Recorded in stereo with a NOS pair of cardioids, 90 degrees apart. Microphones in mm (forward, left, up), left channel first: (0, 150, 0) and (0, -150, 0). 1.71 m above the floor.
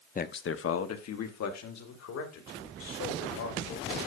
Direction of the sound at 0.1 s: 30° left.